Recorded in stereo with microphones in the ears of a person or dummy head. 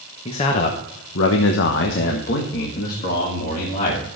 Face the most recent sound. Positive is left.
turn(degrees=40)  # may be behind; listen again after turning